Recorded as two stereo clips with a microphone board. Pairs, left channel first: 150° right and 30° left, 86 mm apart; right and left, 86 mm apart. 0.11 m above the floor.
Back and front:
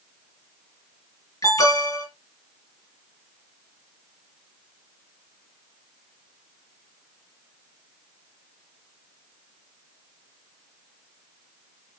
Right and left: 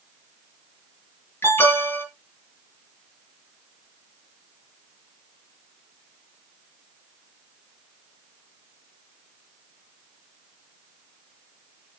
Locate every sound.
1.4 s an alarm: 135° right, 3 m